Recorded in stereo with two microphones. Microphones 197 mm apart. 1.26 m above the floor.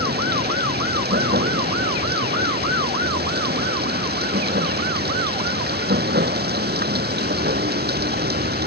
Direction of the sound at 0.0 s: 55° right (ahead or behind).